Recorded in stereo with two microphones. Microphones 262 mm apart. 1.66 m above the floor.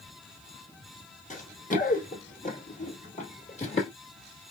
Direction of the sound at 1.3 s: 30° left (ahead or behind).